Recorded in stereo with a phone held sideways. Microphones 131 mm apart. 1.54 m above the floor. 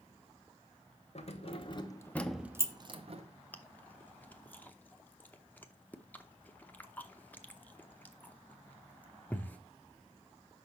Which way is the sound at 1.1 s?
55° left (ahead or behind).